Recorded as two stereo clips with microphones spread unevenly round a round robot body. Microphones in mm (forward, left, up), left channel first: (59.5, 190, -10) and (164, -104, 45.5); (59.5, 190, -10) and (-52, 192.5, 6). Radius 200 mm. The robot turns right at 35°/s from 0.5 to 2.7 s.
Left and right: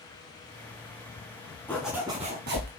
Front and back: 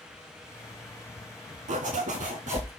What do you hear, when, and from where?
1.7 s a zipper: 165° right, 0.9 m; by 2.7 s 130° right, 0.9 m